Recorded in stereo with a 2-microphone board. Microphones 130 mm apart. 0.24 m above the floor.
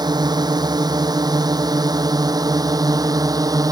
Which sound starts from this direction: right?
A drone, at 0.0 s.